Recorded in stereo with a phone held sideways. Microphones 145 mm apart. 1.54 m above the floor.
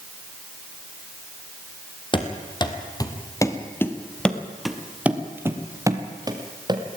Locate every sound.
2.1 s running footsteps: 35° left (ahead or behind), 2.5 m; by 6.8 s 30° right (ahead or behind), 2.5 m